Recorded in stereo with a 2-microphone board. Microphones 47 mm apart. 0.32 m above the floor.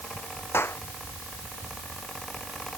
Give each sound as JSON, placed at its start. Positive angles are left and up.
{"t": 0.5, "sound": "a clap", "side_deg": 65}